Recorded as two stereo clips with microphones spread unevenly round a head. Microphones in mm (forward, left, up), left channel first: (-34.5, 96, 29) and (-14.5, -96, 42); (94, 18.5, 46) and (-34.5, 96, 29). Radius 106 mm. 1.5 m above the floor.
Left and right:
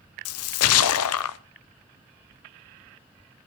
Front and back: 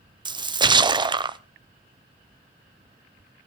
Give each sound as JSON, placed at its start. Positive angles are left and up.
{"t": 0.2, "sound": "a splash", "azimuth_deg": 85, "distance_m": 0.7}